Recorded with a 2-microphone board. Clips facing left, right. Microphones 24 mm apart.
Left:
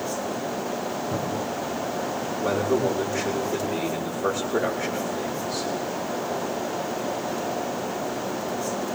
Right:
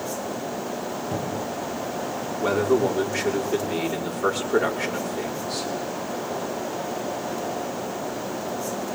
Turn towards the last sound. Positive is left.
turn(degrees=-85)